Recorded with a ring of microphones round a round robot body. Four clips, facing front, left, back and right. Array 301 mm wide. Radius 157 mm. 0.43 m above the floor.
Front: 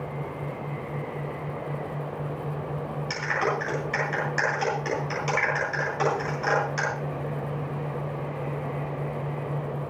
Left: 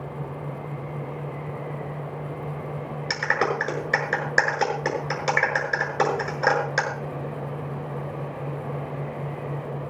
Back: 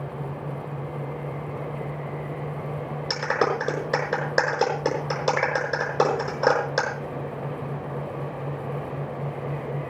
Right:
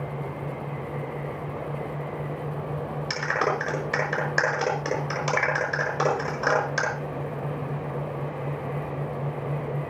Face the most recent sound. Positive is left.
turn(degrees=160)